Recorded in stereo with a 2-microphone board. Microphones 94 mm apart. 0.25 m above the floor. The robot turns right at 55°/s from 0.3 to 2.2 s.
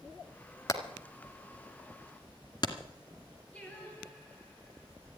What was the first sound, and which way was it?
Hammering, 35° left (ahead or behind).